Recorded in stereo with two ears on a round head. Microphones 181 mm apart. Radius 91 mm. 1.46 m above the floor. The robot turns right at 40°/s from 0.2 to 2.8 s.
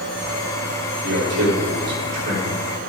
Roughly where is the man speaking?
Right.